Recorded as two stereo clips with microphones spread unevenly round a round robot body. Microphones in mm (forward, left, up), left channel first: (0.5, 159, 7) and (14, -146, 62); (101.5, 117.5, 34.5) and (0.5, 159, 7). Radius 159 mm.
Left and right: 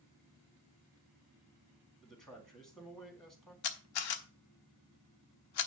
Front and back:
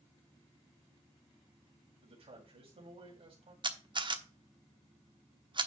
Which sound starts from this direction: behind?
A man speaking, at 2.0 s.